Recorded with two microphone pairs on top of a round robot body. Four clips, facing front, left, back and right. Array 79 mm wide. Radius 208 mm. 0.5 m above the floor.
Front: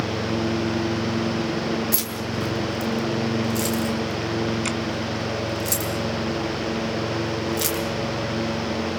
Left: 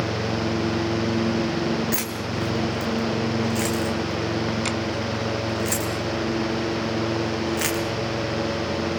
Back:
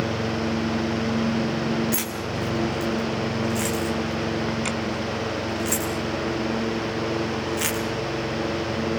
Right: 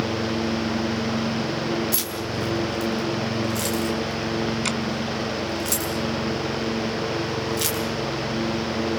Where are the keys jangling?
115° left, 4 m.